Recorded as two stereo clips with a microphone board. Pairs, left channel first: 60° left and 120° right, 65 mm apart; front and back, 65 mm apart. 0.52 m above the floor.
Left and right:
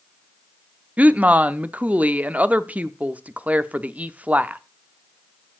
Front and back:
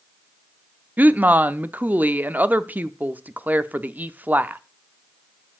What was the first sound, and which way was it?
A woman speaking, 160° right.